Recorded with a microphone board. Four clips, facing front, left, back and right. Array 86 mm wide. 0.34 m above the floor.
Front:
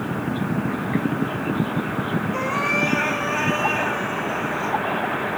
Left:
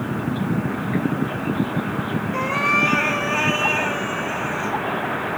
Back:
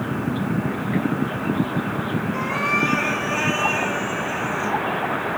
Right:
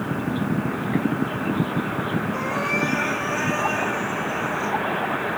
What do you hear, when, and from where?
2.3 s a cat meowing: 80° left, 3 m; by 4.7 s 115° left, 3 m